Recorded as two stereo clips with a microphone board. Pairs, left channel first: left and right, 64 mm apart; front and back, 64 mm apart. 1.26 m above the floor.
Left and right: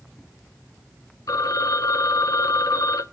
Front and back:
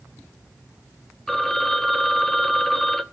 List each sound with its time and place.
1.3 s a phone ringing: 85° left, 1.0 m